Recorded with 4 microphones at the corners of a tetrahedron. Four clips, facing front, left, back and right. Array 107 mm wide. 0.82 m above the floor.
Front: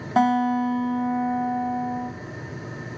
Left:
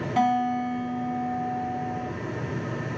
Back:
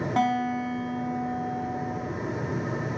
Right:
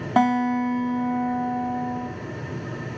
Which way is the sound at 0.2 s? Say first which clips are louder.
Right 3 dB, front 6 dB; 70° right.